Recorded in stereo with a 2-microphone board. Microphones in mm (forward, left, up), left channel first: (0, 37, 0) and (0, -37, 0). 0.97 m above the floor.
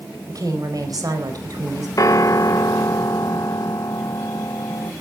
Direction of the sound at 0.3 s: 55° right (ahead or behind).